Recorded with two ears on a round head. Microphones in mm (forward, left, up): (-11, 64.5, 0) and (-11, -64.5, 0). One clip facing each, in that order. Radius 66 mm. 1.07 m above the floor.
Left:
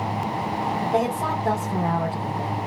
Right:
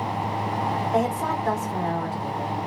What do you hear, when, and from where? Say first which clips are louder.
0.9 s a woman speaking: left 1 dB; 30° left (ahead or behind), 2.5 m